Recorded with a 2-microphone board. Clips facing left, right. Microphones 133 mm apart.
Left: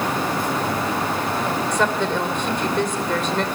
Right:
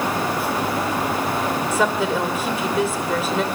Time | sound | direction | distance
1.7 | a woman speaking | 5° right (ahead or behind) | 2.5 m